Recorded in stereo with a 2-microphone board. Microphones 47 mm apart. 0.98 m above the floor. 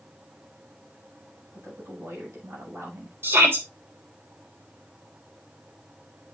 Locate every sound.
1.5 s a woman speaking: 80° right, 6.5 m
3.2 s a shout: 55° right (ahead or behind), 4 m